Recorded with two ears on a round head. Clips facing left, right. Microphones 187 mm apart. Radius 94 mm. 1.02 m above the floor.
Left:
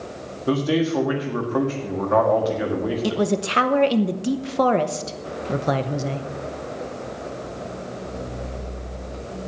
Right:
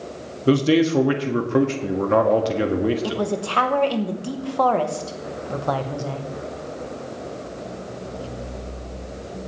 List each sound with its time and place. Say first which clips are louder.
0.5 s a man speaking: right 4 dB; 30° right (ahead or behind), 1.5 m
3.0 s a man speaking: left 2 dB; 25° left (ahead or behind), 0.8 m